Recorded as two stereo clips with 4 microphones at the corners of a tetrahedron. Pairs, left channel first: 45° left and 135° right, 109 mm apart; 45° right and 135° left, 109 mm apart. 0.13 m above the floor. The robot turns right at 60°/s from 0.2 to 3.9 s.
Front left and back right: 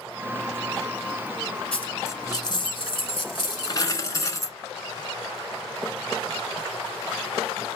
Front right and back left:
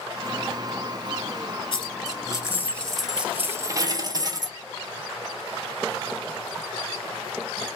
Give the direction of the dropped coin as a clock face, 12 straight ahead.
1 o'clock.